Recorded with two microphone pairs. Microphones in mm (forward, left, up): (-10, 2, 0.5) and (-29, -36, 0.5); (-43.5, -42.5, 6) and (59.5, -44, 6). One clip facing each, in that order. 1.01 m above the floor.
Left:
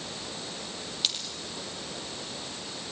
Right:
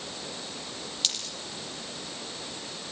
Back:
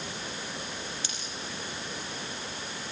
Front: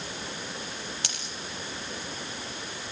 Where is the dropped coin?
20° right, 5 m.